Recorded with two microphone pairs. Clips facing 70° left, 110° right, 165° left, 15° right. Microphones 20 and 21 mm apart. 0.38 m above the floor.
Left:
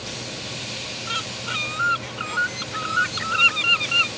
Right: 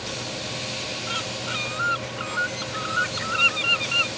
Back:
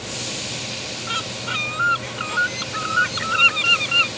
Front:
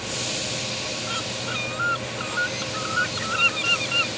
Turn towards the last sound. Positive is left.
turn(degrees=135)